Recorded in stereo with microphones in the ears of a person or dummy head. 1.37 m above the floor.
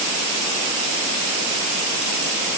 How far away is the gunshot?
No gunshot in this recording.